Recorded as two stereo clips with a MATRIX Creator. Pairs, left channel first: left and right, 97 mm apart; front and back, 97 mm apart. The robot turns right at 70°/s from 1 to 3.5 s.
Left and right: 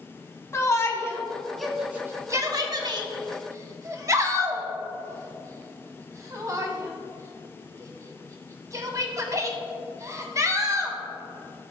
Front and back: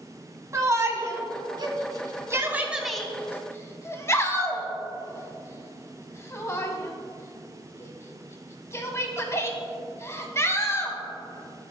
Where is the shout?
135° left, 1.4 m; by 11.0 s 50° right, 1.4 m.